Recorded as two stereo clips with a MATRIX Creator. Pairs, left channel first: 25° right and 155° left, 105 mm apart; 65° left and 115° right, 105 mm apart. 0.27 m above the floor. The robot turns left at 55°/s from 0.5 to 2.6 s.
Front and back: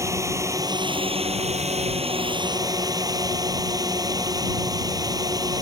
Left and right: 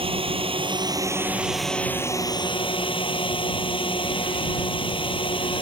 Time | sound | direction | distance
0.0 | a drone | 140° right | ?